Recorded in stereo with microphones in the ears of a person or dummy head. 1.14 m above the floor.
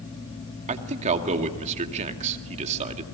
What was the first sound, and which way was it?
A man speaking, 40° right (ahead or behind).